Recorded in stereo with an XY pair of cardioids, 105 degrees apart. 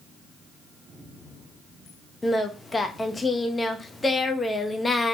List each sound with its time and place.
2.2 s singing: 20° left, 0.8 m